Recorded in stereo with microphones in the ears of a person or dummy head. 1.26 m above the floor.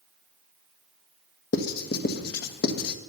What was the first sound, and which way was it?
Writing, 55° left (ahead or behind).